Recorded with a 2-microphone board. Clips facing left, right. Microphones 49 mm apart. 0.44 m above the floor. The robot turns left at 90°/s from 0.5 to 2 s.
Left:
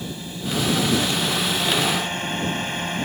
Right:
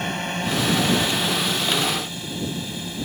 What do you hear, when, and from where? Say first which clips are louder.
0.0 s a drone: right 6 dB; 65° right (ahead or behind); by 3.1 s 50° left (ahead or behind)